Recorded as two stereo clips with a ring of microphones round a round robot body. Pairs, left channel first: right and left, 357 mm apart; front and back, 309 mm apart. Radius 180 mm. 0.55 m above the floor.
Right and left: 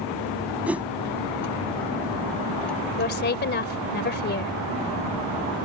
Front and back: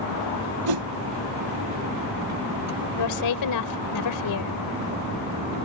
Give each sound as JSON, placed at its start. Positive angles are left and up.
{"t": 0.7, "sound": "a whoosh", "azimuth_deg": 175}
{"t": 3.0, "sound": "a woman speaking", "azimuth_deg": -30}